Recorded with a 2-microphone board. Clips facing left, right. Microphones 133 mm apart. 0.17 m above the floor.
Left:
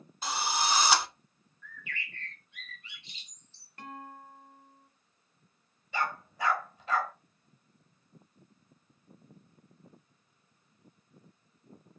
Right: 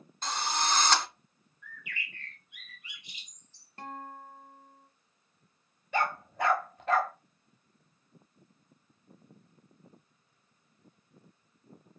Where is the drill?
5° left (ahead or behind), 0.6 m.